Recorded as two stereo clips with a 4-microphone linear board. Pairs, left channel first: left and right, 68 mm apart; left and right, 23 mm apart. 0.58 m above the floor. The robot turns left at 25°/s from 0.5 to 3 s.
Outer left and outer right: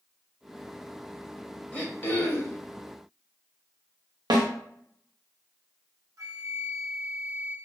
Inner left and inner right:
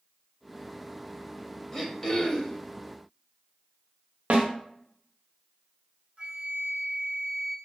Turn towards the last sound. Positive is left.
turn(degrees=-55)  # may be behind; listen again after turning